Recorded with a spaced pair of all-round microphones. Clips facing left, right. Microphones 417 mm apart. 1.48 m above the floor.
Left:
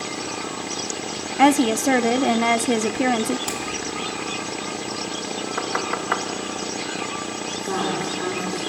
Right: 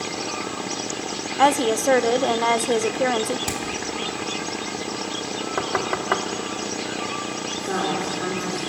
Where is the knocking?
55° right (ahead or behind), 1.3 m.